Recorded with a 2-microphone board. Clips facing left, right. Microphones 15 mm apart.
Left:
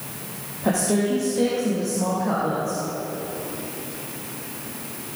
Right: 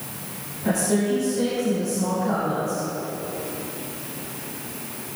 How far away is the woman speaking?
About 3.5 m.